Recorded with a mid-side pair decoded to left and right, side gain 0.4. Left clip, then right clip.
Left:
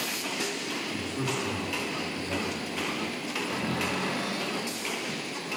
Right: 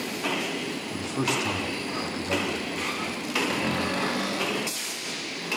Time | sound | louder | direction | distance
0.9 | a man speaking | right 4 dB | 55° right | 3.5 m
3.5 | a cupboard door | right 3 dB | 55° right | 3 m